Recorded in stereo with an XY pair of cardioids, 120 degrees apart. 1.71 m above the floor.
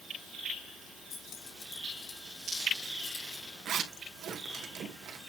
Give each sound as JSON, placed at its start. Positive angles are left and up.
{"t": 1.1, "sound": "keys jangling", "azimuth_deg": 55, "distance_m": 3.5}
{"t": 3.6, "sound": "a zipper", "azimuth_deg": -55, "distance_m": 2.5}